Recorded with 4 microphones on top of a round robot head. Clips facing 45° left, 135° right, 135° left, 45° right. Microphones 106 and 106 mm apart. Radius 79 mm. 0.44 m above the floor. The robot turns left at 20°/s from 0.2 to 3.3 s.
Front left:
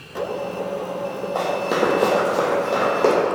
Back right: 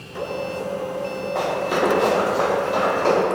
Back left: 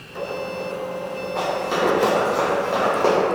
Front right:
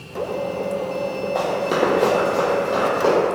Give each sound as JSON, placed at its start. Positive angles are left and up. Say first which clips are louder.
{"t": 1.4, "sound": "running footsteps", "louder": "front left 1 dB, front right 2 dB", "azimuth_deg": -25, "distance_m": 0.7}